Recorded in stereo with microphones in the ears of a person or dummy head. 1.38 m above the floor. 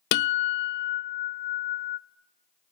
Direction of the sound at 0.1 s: 55° left (ahead or behind).